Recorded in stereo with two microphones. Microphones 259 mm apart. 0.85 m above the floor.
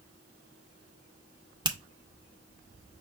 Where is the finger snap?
15° right (ahead or behind), 0.8 m.